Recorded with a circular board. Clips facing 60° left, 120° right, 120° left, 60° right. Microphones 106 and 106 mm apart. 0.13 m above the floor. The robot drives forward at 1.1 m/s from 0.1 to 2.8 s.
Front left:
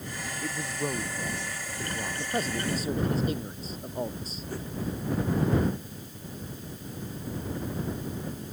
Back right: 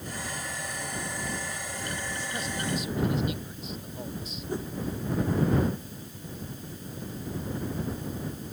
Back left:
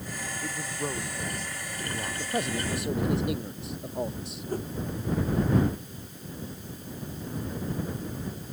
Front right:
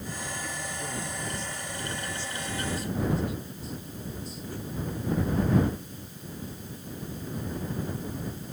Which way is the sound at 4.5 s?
170° left.